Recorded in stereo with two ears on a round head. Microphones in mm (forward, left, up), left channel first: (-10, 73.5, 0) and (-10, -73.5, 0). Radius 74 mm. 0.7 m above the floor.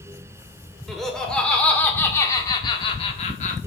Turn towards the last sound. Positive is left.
turn(degrees=45)  # may be behind; listen again after turning